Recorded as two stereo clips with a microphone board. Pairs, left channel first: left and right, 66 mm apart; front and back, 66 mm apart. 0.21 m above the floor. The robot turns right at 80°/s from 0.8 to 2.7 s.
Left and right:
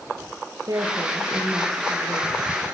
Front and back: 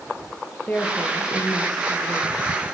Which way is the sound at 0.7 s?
65° right.